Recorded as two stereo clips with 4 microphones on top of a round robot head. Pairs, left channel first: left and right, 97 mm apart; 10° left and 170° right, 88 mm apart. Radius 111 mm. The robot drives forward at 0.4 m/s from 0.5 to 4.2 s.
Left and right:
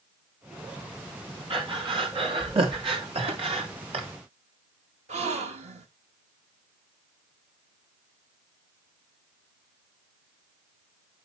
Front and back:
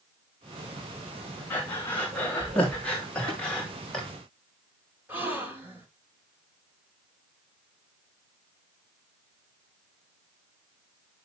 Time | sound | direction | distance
1.5 | breathing | 60° right | 3.5 m
3.3 | tapping | 115° right | 8 m
5.1 | a gasp | 95° right | 1.3 m